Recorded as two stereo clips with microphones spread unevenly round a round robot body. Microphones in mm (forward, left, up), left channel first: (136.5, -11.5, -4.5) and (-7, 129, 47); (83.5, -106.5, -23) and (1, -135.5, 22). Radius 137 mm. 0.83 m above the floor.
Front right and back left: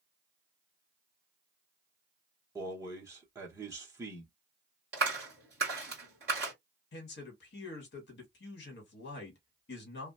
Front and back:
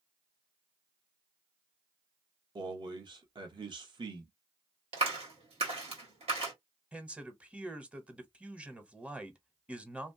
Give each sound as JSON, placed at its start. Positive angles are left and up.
{"t": 2.5, "sound": "a man speaking", "azimuth_deg": -135, "distance_m": 0.9}
{"t": 4.9, "sound": "a clap", "azimuth_deg": -165, "distance_m": 1.7}
{"t": 6.9, "sound": "a man speaking", "azimuth_deg": -70, "distance_m": 1.1}